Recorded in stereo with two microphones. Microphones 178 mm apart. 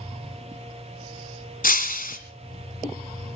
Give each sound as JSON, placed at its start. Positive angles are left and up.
{"t": 1.6, "sound": "breaking glass", "side_deg": 50, "distance_m": 1.6}